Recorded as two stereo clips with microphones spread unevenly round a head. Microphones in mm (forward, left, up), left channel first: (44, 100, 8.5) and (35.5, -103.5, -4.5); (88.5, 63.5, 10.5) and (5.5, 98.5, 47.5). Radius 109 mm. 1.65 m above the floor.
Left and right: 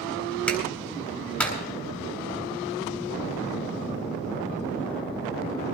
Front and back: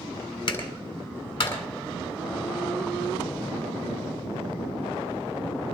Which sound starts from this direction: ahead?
A clap, at 0.5 s.